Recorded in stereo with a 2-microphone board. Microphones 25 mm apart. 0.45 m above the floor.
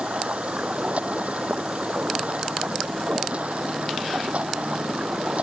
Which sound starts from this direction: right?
Running water, at 0.0 s.